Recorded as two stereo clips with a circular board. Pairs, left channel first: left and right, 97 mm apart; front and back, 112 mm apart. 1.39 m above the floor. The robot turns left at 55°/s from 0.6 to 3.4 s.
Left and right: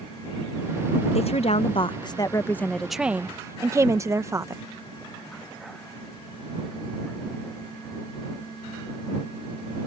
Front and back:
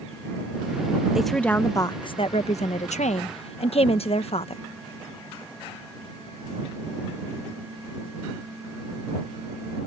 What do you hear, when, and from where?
1.1 s a woman speaking: 95° left; by 4.6 s 30° right